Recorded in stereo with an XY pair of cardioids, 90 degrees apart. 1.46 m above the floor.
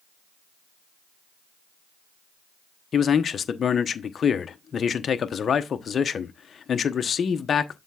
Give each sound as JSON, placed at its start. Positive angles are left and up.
{"t": 2.9, "sound": "a man speaking", "azimuth_deg": 50, "distance_m": 1.0}